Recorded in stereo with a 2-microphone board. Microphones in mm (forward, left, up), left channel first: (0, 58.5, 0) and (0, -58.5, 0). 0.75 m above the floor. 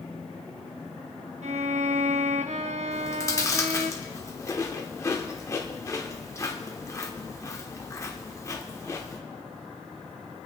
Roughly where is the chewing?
Left.